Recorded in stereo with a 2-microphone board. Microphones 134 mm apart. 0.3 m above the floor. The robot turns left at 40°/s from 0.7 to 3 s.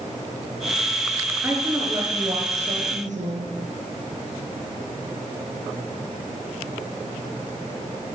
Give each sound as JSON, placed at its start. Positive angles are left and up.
{"t": 1.4, "sound": "a woman speaking", "azimuth_deg": -15, "distance_m": 4.5}